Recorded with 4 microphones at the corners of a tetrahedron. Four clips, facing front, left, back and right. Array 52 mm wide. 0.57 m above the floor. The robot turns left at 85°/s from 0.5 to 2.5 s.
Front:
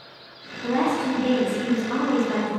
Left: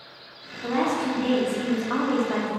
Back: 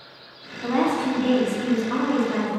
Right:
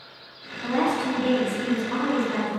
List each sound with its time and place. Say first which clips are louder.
0.6 s a woman speaking: right 1 dB, back 1 dB; 170° right, 0.8 m; by 2.5 s 30° left, 0.8 m